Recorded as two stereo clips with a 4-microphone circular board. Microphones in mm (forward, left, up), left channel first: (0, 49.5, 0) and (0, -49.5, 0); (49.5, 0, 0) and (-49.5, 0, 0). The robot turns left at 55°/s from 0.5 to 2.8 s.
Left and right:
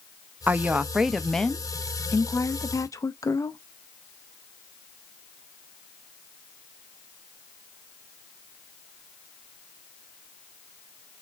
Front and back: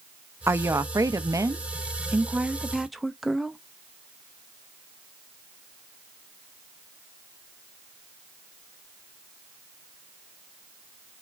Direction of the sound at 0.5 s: 145° right.